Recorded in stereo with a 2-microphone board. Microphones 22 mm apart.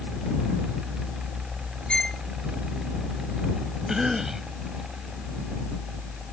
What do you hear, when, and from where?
1.9 s a violin: 45° left (ahead or behind)
3.9 s a cough: 15° right (ahead or behind)